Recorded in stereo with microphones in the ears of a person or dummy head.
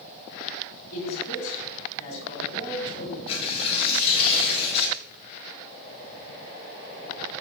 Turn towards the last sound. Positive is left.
turn(degrees=30)  # may be behind; listen again after turning